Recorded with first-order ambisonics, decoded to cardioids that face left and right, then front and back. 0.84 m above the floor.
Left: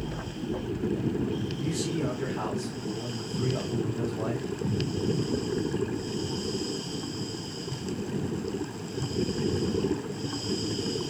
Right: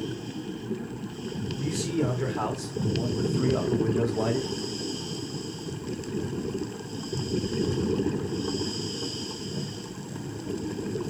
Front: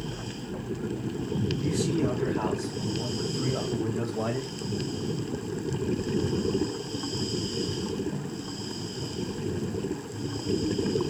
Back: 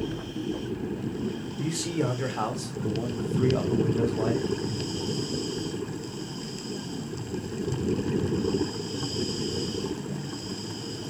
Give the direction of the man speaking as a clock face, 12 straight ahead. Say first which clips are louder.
Right 5 dB, back 1 dB; 6 o'clock.